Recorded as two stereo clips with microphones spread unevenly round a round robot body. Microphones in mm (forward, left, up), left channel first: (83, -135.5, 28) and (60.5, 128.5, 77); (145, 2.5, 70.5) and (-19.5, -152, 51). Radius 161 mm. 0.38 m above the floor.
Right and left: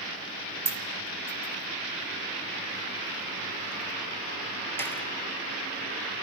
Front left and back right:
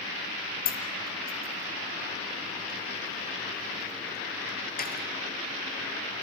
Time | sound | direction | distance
0.7 | a dropped coin | 5° right | 5 m